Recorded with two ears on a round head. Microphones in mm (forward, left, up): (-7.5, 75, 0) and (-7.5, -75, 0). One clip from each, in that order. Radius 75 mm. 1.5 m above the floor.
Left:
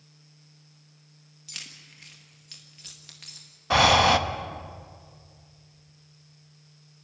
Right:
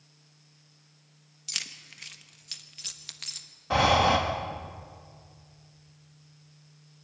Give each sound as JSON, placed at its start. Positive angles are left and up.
{"t": 1.5, "sound": "keys jangling", "side_deg": -30, "distance_m": 1.3}
{"t": 3.7, "sound": "breathing", "side_deg": 40, "distance_m": 1.0}